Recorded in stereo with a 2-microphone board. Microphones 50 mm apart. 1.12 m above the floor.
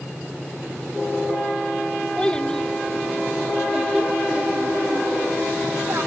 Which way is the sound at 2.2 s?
20° left (ahead or behind).